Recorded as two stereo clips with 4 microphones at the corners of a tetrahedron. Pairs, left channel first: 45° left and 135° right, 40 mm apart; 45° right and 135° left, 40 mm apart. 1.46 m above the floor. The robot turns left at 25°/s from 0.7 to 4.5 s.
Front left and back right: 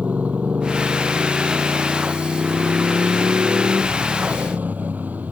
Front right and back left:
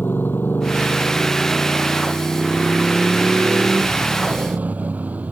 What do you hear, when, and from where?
0.0 s a motorcycle: 80° right; by 5.3 s 175° right